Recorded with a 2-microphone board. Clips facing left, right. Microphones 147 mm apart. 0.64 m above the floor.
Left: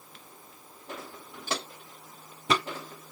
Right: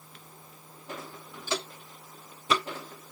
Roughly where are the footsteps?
Left.